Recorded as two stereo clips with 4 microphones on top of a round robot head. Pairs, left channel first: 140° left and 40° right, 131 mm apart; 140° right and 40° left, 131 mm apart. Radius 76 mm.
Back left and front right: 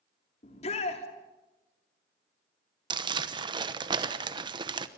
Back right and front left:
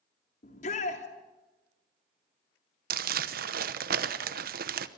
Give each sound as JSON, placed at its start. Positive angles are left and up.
{"t": 0.4, "sound": "a shout", "azimuth_deg": -175, "distance_m": 3.0}
{"t": 2.9, "sound": "crumpling", "azimuth_deg": 20, "distance_m": 0.9}